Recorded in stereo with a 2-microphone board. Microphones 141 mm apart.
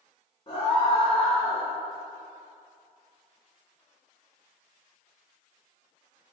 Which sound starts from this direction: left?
A scream, at 0.5 s.